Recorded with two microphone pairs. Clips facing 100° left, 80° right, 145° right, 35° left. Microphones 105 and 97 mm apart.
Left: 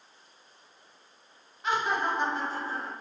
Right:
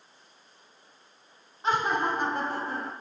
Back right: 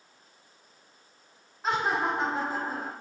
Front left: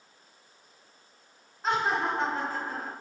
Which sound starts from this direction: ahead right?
Laughter, at 1.6 s.